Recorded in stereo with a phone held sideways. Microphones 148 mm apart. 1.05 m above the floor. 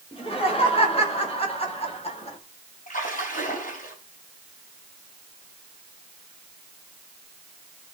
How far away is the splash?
About 5.5 m.